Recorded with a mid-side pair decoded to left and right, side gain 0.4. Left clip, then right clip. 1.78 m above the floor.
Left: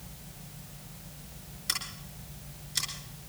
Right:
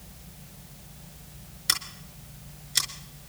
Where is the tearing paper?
I don't hear tearing paper.